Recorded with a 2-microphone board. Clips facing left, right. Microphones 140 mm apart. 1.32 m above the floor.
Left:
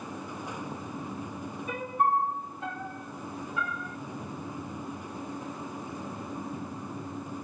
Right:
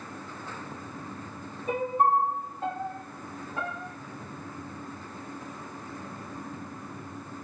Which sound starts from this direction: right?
A piano, at 1.7 s.